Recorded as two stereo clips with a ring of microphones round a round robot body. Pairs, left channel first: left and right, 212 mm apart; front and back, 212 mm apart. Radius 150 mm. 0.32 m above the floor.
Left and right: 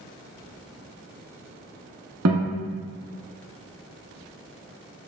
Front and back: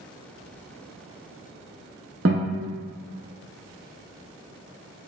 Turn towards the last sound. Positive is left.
turn(degrees=-125)